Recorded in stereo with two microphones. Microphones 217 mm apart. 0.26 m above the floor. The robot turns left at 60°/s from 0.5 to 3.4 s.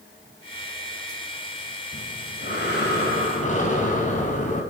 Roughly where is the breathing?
Behind left.